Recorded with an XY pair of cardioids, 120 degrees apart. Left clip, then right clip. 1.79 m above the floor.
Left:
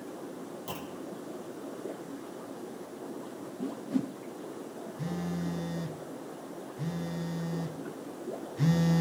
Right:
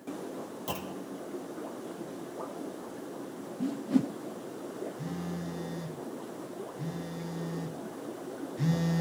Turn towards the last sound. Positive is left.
turn(degrees=20)